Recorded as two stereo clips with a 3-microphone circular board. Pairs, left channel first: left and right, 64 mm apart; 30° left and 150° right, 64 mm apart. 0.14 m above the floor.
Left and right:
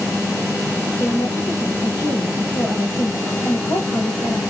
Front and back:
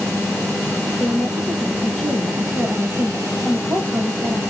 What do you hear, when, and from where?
1.0 s a woman speaking: 105° left, 4.5 m